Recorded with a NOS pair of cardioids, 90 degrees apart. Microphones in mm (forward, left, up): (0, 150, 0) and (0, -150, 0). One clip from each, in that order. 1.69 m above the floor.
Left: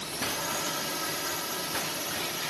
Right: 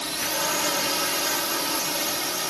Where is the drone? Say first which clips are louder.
Right 6 dB; 55° right.